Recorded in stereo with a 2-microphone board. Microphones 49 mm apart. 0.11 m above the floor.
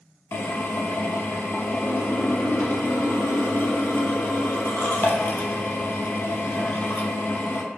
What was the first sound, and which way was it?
A drill, 50° left (ahead or behind).